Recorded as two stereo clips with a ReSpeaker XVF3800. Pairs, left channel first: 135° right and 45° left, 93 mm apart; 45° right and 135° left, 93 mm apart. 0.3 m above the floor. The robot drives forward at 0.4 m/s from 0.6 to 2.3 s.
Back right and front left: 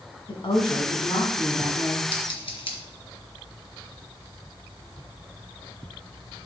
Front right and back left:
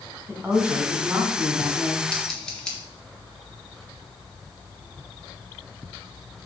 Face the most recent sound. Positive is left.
turn(degrees=-125)